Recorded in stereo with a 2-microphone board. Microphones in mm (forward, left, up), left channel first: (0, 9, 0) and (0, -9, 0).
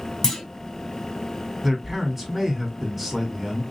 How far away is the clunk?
About 1.6 m.